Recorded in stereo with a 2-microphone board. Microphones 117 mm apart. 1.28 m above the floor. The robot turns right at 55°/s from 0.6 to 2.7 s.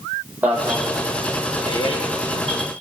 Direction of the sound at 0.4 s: 15° right (ahead or behind).